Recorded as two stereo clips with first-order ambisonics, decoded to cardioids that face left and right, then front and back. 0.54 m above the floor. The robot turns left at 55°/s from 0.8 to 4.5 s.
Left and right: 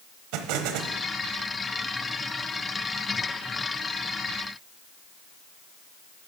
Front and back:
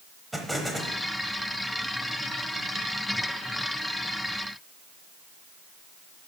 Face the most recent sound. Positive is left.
turn(degrees=60)